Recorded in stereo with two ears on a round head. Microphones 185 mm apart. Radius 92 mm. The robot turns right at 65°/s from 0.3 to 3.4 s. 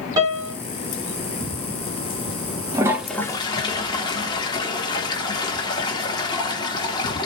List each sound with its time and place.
0.2 s a piano: 20° right (ahead or behind), 1.9 m; by 0.5 s 5° right (ahead or behind), 1.9 m
2.7 s a toilet flushing: 20° right (ahead or behind), 0.7 m; by 7.3 s 20° left (ahead or behind), 0.7 m